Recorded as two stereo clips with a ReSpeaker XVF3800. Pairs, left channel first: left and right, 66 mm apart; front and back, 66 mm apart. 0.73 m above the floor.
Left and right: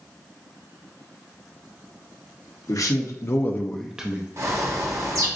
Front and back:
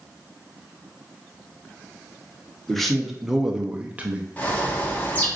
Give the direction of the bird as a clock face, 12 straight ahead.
2 o'clock.